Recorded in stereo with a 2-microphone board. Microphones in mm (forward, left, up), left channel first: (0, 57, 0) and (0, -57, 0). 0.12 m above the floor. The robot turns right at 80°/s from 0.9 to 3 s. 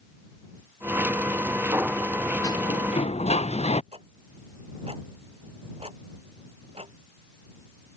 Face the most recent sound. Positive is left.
turn(degrees=-65)  # may be behind; listen again after turning